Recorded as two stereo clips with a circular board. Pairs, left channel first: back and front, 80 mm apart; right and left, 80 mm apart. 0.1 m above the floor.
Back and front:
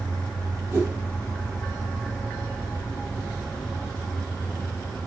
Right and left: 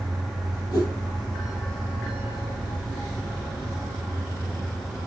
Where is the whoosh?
55° right, 4 m.